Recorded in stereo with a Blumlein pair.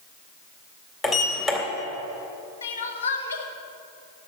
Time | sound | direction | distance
1.0 | a sliding door | 20° left | 2 m
2.6 | crying | 65° left | 1.2 m